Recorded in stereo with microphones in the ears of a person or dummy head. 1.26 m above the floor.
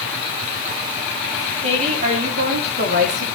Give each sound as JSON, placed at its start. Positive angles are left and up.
{"t": 1.6, "sound": "a woman speaking", "side_deg": -45, "distance_m": 3.0}